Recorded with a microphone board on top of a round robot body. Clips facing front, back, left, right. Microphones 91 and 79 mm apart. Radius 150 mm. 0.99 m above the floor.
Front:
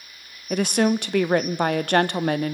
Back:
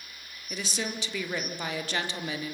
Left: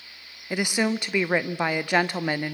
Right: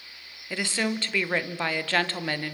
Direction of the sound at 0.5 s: 15° left.